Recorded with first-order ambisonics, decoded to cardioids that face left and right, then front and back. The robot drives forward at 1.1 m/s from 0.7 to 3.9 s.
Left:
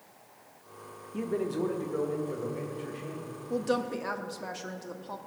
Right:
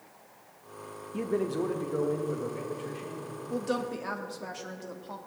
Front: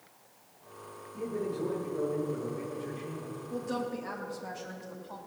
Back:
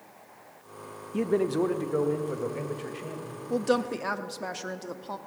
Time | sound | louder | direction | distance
1.1 | a man speaking | right 1 dB, back 9 dB | 170° right | 0.8 m
3.5 | a woman speaking | left 2 dB, back 9 dB | 170° left | 0.8 m